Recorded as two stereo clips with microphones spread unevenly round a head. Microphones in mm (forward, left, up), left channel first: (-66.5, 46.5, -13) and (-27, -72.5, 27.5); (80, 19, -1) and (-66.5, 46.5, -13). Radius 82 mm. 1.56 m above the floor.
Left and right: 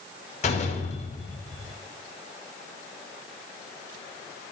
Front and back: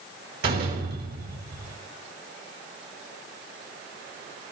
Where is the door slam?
150° left, 4.5 m.